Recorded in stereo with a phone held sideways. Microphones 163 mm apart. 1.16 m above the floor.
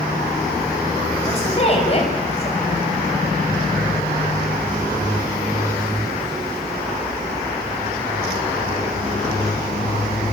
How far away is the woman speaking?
About 7 m.